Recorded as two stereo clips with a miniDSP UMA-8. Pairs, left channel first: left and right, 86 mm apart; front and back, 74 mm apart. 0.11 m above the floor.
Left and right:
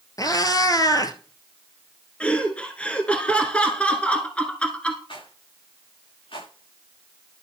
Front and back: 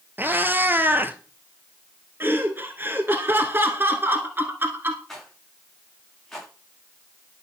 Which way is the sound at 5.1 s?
85° left.